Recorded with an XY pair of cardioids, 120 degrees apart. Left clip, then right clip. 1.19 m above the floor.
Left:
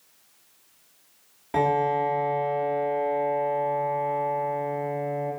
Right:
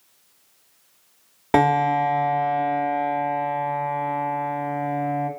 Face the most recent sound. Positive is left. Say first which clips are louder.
# right 4 dB
turn(degrees=-70)